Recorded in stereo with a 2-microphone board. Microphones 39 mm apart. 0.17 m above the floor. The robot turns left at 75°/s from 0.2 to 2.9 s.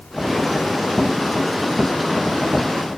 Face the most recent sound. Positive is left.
No sound to turn to.